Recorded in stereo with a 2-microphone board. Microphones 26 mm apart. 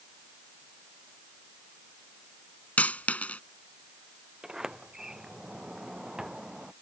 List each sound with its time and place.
2.8 s a dropped coin: 80° left
4.4 s a sliding door: 25° right (ahead or behind)